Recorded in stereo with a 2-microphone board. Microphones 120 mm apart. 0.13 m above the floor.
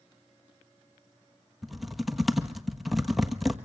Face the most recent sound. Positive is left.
turn(degrees=0)  # may be behind; listen again after turning